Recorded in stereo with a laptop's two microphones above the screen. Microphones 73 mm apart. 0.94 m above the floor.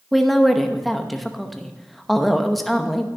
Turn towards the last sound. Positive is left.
turn(degrees=0)  # may be behind; listen again after turning